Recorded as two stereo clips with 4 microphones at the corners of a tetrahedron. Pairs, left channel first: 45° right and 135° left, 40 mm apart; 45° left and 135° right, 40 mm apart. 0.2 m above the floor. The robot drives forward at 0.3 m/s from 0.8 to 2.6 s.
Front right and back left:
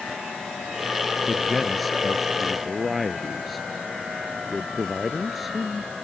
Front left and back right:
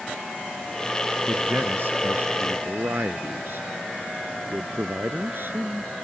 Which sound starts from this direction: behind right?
A man speaking, at 1.3 s.